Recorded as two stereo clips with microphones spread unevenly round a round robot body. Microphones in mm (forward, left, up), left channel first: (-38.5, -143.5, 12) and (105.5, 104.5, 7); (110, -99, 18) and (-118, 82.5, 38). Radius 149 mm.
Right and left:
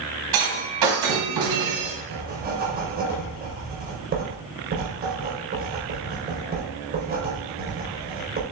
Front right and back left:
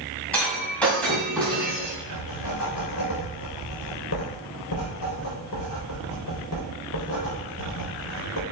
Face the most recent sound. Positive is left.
turn(degrees=0)